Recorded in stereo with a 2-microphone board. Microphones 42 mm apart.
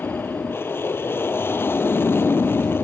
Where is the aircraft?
65° left (ahead or behind).